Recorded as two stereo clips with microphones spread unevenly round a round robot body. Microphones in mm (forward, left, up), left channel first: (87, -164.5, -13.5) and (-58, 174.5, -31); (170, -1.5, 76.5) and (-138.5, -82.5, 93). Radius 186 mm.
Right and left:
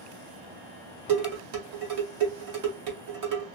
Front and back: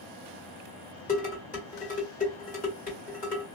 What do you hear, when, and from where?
1.1 s dishes clattering: 85° left, 1.7 m